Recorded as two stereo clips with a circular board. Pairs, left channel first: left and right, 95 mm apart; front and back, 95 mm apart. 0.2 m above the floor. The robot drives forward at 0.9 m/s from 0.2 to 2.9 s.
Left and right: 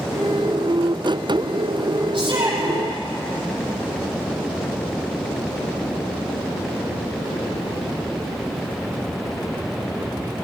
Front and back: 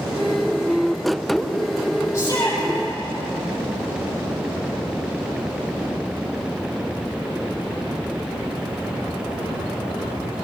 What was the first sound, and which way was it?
A shout, 55° right.